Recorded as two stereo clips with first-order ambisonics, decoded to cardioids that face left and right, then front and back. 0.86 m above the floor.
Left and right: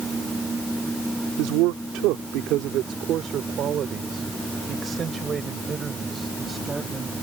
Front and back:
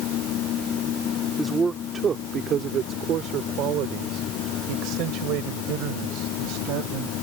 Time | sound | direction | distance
1.4 | a man speaking | 100° right | ?